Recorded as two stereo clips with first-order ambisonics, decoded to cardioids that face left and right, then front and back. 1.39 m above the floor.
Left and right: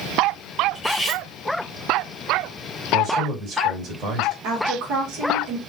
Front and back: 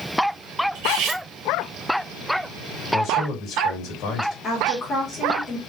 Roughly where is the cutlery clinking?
Behind.